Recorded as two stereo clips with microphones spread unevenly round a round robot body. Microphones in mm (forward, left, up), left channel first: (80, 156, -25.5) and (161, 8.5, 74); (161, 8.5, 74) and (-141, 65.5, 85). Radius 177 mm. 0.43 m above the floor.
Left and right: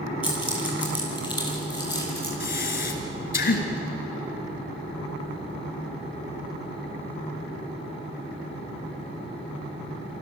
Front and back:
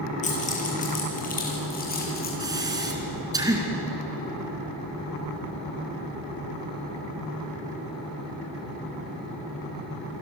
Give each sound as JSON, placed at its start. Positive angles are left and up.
{"t": 0.2, "sound": "keys jangling", "azimuth_deg": 55, "distance_m": 8.0}
{"t": 2.4, "sound": "breathing", "azimuth_deg": 90, "distance_m": 3.5}